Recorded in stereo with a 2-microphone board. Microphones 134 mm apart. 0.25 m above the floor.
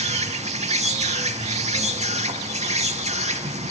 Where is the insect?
55° right (ahead or behind), 0.8 m.